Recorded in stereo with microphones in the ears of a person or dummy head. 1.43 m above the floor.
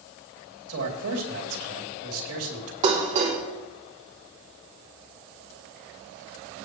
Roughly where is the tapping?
I don't hear tapping.